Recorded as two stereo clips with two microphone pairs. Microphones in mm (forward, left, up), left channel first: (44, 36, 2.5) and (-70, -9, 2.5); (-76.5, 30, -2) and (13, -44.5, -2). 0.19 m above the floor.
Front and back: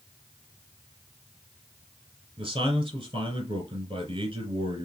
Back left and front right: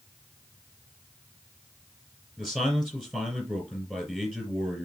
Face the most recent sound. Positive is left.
turn(degrees=-135)